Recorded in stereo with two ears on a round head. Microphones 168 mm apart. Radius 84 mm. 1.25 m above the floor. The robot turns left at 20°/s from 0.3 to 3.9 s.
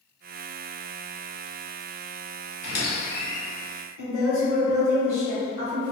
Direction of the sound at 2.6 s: 45° left (ahead or behind).